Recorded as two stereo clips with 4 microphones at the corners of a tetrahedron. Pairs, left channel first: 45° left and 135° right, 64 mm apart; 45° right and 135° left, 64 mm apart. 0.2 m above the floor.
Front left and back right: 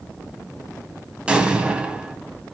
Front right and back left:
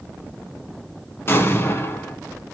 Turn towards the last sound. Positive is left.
turn(degrees=-70)